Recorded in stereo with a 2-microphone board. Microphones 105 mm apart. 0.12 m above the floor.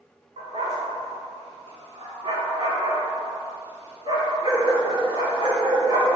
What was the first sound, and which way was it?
A dog barking, 75° right (ahead or behind).